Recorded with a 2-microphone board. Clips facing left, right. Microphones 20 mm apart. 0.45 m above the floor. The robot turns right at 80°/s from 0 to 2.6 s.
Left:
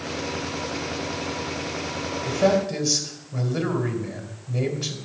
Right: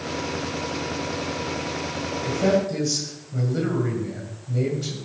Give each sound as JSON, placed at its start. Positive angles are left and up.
{"t": 2.2, "sound": "a man speaking", "side_deg": 40, "distance_m": 2.0}